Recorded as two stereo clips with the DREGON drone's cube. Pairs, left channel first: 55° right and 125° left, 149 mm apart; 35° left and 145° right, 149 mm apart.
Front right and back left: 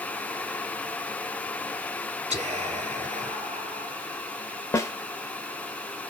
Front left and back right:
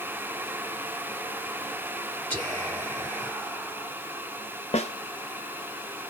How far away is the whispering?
About 1.0 m.